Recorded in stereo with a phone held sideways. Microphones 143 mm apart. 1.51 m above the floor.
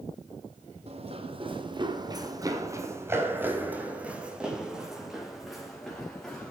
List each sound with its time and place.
0.9 s running footsteps: 45° right (ahead or behind), 2.5 m; by 6.5 s 5° left (ahead or behind), 5.5 m